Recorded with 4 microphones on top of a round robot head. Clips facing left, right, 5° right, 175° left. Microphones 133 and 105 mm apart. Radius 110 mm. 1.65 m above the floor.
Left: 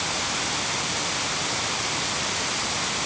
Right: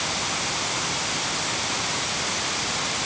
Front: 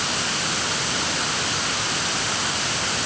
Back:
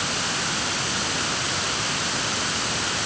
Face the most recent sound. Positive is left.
No sound to turn to.